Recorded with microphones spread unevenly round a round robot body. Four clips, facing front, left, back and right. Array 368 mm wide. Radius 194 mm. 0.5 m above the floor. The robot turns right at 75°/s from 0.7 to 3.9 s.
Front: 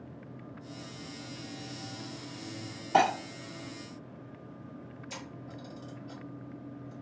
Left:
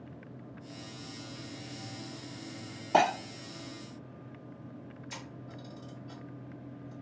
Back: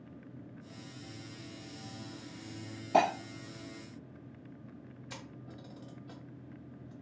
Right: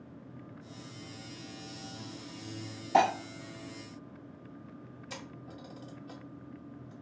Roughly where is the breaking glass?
Behind left.